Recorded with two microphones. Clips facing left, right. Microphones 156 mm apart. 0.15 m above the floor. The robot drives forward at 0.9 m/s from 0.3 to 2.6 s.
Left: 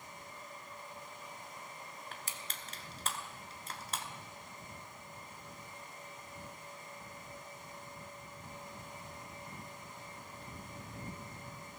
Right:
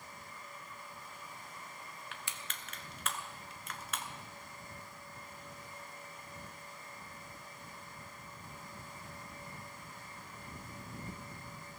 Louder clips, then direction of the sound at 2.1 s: Left 1 dB; 40° left (ahead or behind).